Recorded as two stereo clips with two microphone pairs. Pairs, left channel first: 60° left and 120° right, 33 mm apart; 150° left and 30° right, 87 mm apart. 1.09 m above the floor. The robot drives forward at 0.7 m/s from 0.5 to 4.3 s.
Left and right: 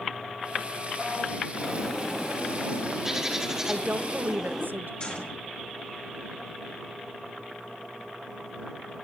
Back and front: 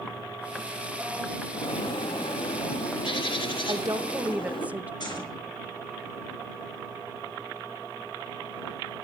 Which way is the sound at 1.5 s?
155° left.